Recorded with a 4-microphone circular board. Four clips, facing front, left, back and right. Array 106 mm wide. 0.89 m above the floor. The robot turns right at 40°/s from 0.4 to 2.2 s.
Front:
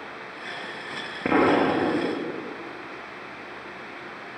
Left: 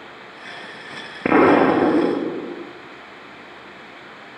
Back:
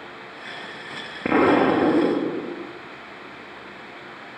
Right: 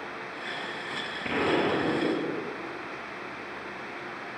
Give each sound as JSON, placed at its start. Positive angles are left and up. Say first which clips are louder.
{"t": 1.2, "sound": "an explosion", "louder": "left 13 dB, back 3 dB", "azimuth_deg": 90, "distance_m": 1.1}